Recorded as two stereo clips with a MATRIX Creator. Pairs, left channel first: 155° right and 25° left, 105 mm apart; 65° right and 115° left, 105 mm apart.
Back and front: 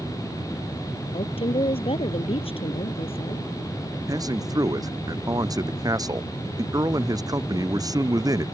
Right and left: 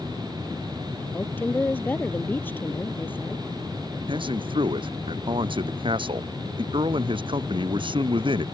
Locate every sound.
1.1 s a woman speaking: 140° right
4.1 s a man speaking: 75° left